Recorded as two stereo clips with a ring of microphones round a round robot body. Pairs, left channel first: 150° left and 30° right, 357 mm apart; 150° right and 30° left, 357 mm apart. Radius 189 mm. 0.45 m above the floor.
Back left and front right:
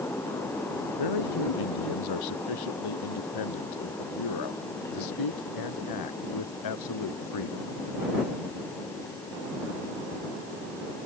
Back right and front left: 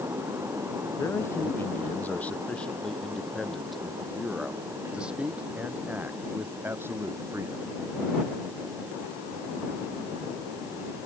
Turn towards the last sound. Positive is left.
turn(degrees=110)